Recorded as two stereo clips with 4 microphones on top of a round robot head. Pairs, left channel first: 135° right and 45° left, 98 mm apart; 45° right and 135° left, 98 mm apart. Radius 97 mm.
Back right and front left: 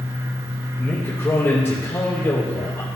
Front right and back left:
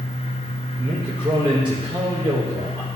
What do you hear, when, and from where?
0.8 s a man speaking: 160° left, 1.6 m